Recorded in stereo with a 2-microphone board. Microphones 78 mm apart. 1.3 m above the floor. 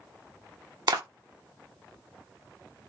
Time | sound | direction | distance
0.9 | a clap | 55° right (ahead or behind) | 1.0 m